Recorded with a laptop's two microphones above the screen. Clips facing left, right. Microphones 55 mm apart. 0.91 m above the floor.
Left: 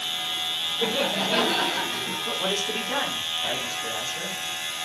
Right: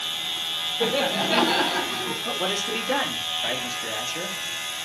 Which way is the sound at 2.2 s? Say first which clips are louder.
Even; 60° right (ahead or behind).